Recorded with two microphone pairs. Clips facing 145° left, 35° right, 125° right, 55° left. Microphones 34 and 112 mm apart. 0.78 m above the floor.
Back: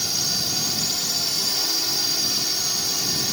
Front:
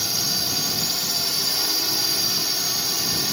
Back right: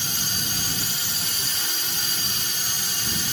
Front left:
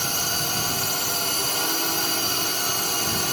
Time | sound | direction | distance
0.0 | a drone | 45° left | ?